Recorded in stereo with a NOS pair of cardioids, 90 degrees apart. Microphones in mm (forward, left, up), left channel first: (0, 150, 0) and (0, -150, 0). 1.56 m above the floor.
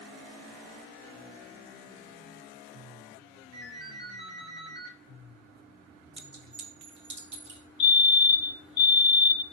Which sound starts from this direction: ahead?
A fire alarm, at 7.8 s.